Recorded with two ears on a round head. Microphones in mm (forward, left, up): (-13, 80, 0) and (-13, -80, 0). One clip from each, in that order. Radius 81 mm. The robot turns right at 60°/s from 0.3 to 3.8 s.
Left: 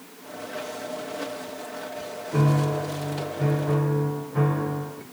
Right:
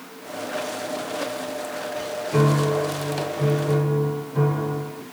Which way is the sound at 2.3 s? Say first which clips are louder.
Right 4 dB; 55° right.